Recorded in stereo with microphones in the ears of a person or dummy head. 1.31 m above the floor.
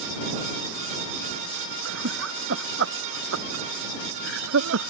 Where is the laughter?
75° right (ahead or behind); by 4.9 s 85° right.